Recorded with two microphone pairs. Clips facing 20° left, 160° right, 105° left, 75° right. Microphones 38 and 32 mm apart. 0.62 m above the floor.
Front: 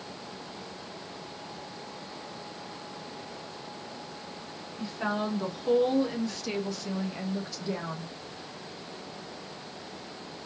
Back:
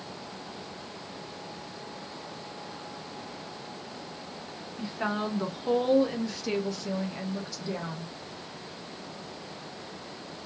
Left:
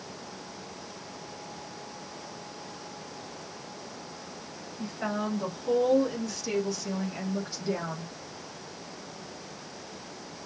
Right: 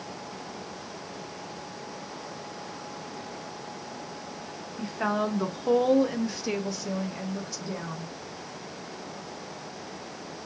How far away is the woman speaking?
About 1.4 m.